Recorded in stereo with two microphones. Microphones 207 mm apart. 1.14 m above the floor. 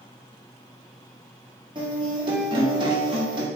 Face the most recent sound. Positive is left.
turn(degrees=-20)  # may be behind; listen again after turning